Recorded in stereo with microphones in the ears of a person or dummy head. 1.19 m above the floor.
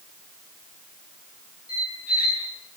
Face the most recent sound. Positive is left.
turn(degrees=45)  # may be behind; listen again after turning